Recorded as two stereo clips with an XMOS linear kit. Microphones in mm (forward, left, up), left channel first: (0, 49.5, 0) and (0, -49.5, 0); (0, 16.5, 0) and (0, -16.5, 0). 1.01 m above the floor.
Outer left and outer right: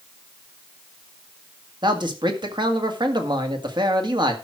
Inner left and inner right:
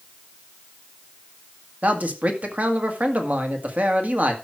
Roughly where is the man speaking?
Right.